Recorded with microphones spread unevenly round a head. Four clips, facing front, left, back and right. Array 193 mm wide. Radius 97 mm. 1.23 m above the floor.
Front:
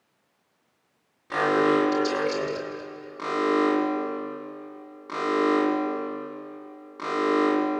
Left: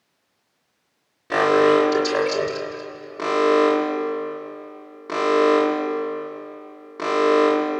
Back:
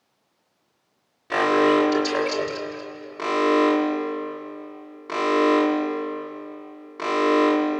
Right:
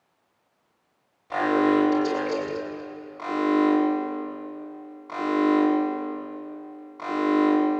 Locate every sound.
1.3 s an alarm: 110° left, 8.5 m